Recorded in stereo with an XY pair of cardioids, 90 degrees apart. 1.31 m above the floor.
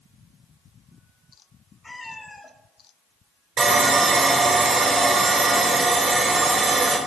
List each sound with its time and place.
1.8 s a cat meowing: 20° left, 3.5 m
3.6 s sawing: 55° right, 3.5 m